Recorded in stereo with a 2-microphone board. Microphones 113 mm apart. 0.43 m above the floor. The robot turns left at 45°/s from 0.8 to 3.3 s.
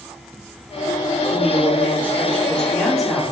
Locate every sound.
1.3 s a woman speaking: 20° left (ahead or behind), 0.8 m; by 3.2 s 5° right (ahead or behind), 0.8 m